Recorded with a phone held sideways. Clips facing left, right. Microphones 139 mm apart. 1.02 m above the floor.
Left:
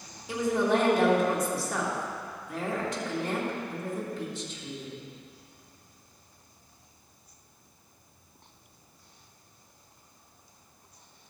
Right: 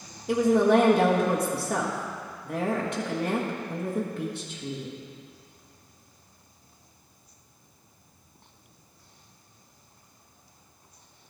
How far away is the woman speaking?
About 1.3 m.